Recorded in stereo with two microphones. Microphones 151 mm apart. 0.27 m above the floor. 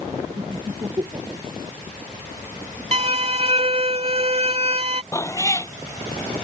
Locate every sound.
0.4 s laughter: 30° right (ahead or behind)
2.9 s a violin: 45° right (ahead or behind)
5.1 s a cat meowing: 20° left (ahead or behind)